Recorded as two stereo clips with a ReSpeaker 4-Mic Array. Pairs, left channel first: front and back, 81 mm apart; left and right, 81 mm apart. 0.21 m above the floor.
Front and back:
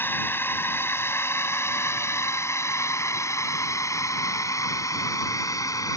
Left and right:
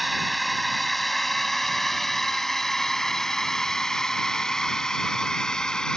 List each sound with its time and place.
0.0 s a drone: straight ahead; by 6.0 s 10° left